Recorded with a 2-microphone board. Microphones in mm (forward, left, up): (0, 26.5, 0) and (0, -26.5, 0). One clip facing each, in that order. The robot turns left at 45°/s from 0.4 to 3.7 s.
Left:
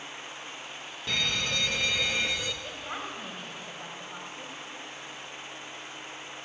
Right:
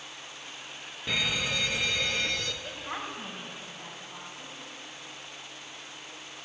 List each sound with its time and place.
1.1 s a fire alarm: 10° right (ahead or behind), 1.4 m; by 2.5 s 10° left (ahead or behind), 1.4 m
2.6 s a woman speaking: centre (ahead or behind), 5.5 m; by 4.5 s 45° left (ahead or behind), 5.5 m